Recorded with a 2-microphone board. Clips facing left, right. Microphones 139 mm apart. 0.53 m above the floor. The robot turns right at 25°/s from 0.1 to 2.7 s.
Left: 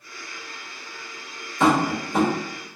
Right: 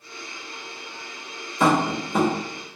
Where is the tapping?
10° right (ahead or behind), 1.2 m; by 2.3 s 5° left (ahead or behind), 1.2 m.